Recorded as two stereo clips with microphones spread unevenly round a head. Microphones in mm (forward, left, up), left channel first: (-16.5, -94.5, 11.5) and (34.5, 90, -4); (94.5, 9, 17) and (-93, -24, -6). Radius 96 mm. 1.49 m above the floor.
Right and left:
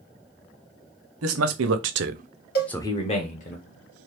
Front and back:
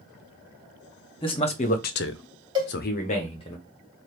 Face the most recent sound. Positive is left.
turn(degrees=-100)